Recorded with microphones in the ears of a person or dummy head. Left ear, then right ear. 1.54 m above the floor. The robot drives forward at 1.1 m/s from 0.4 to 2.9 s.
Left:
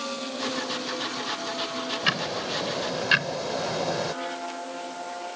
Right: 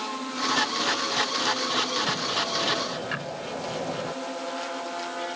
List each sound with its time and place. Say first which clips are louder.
2.0 s ticking: even; 60° left (ahead or behind); by 4.1 s 70° left (ahead or behind)